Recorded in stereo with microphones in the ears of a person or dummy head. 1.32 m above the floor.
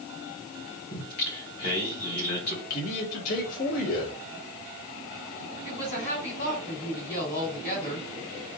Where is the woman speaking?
55° left (ahead or behind), 2.5 m.